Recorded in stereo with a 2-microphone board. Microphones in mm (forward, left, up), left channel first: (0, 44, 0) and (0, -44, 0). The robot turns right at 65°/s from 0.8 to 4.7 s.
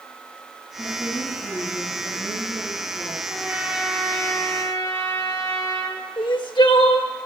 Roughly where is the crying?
Left.